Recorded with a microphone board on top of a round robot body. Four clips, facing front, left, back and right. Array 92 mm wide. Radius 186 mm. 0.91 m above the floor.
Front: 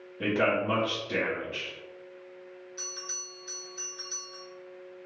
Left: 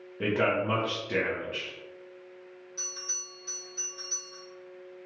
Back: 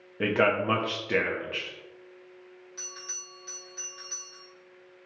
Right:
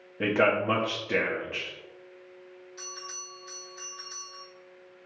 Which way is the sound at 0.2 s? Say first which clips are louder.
Right 3 dB, back 2 dB; 160° right.